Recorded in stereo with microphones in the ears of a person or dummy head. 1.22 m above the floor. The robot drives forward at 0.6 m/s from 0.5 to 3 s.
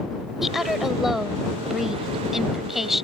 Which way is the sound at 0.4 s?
Centre (ahead or behind).